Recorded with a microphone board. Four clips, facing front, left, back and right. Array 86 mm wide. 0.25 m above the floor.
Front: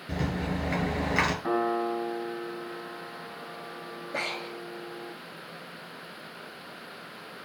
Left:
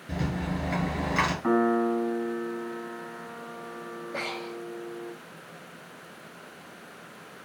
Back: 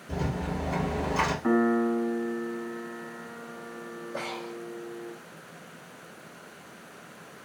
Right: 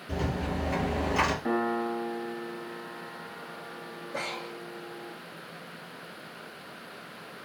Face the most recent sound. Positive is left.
turn(degrees=20)